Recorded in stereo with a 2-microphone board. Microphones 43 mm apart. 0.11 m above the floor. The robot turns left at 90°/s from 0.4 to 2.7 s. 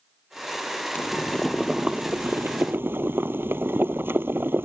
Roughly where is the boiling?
Ahead left.